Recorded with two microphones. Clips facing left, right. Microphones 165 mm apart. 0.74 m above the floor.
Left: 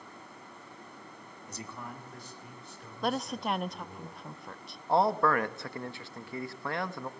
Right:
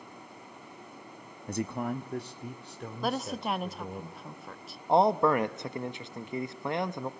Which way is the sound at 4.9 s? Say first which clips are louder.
Right 3 dB; 20° right (ahead or behind).